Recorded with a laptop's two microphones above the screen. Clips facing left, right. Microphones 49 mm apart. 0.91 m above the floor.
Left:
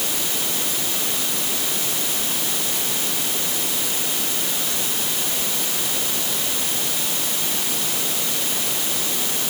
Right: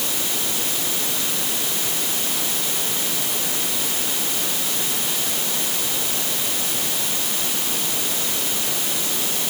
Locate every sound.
Only background noise.